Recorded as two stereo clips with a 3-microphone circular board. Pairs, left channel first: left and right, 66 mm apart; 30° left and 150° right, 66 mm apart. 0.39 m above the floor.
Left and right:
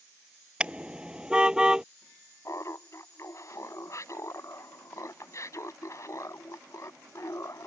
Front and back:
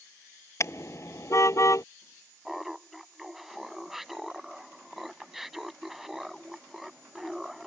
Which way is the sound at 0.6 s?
15° right.